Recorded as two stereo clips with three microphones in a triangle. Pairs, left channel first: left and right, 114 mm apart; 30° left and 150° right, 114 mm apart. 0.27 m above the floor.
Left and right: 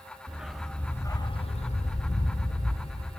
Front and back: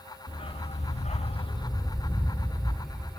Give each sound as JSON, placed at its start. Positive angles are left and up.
{"t": 0.3, "sound": "a dog barking", "azimuth_deg": -10, "distance_m": 1.0}